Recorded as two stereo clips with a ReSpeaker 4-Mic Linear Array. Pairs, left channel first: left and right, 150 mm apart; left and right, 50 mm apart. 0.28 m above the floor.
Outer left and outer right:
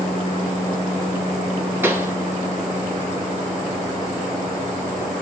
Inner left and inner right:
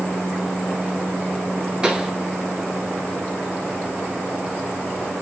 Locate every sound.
1.8 s a pop: 15° right (ahead or behind), 0.7 m